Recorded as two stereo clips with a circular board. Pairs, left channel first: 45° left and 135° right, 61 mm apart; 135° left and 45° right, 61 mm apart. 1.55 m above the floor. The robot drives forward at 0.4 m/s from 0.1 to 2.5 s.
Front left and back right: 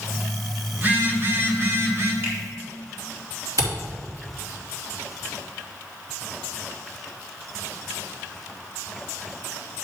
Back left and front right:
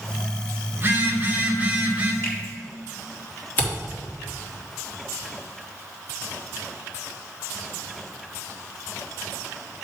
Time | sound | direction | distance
0.8 | a phone buzzing | 90° right | 1.6 m
2.2 | a finger snap | 175° right | 3 m
3.6 | a camera shutter | 165° right | 3.5 m